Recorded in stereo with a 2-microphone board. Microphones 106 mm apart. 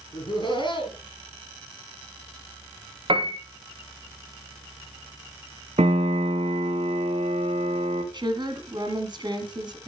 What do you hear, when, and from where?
0.1 s laughter: 45° left (ahead or behind), 5 m
3.1 s a piano: 55° right (ahead or behind), 1.9 m
5.8 s a piano: 80° right, 2.5 m
8.1 s a woman speaking: 45° right (ahead or behind), 1.9 m